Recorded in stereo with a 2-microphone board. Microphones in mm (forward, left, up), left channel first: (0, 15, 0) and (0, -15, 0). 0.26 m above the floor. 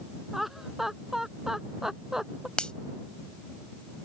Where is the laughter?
5° right (ahead or behind); by 2.5 s 15° right (ahead or behind).